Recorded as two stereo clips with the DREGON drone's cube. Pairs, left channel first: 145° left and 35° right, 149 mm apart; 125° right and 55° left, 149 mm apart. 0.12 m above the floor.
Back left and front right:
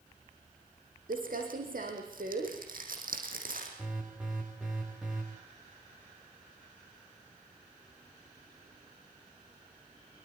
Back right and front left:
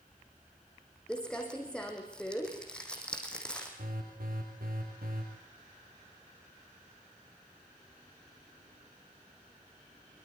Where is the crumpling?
40° right, 5 m.